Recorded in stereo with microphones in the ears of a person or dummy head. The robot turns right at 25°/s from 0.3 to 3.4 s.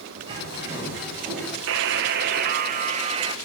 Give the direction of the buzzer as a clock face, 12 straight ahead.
2 o'clock.